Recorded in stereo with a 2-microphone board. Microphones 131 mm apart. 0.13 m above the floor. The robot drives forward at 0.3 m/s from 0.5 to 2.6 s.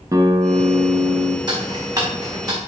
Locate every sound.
0.1 s a guitar: 30° right (ahead or behind), 1.0 m
1.5 s ticking: 35° right (ahead or behind), 2.5 m; by 2.6 s 30° right (ahead or behind), 2.5 m